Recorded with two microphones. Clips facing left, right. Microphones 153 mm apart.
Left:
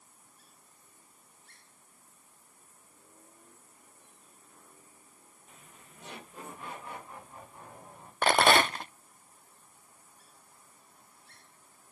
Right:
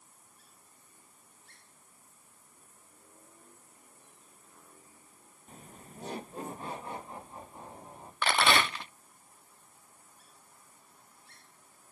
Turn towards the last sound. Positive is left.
turn(degrees=45)  # may be behind; listen again after turning